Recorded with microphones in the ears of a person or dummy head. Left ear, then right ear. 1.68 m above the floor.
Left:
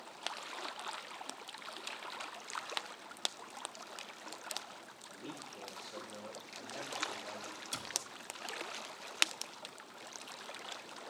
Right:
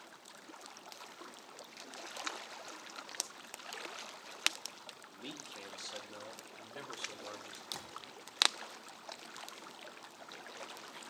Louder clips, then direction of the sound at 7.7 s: Left 6 dB; 75° left (ahead or behind).